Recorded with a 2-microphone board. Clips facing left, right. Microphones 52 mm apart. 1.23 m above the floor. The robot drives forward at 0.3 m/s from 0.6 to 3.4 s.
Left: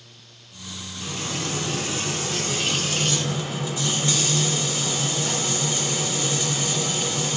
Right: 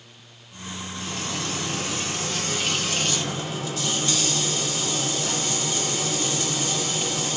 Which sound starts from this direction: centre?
Frying, at 1.0 s.